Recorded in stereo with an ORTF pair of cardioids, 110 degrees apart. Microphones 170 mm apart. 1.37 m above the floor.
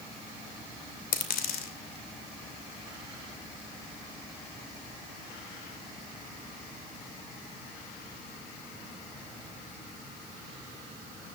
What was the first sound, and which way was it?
A dropped coin, 60° left.